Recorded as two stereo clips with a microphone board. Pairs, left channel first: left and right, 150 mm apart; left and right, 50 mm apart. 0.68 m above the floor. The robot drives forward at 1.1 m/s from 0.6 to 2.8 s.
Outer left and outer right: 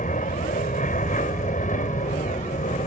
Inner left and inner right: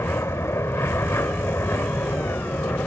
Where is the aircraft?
60° left (ahead or behind).